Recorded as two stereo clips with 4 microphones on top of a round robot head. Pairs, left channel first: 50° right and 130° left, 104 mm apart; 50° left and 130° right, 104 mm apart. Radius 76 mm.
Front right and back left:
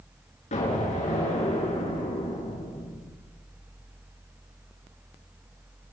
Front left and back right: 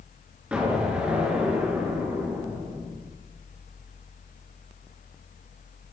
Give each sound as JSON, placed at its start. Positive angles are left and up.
{"t": 0.5, "sound": "an explosion", "azimuth_deg": -55, "distance_m": 8.5}